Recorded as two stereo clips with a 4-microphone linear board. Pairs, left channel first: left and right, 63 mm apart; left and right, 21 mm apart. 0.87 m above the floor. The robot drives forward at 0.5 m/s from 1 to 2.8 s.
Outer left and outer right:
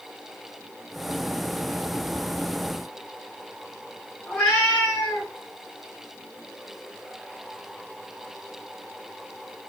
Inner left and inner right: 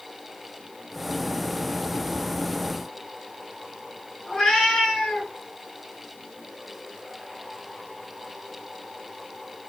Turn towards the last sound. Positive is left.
turn(degrees=20)  # may be behind; listen again after turning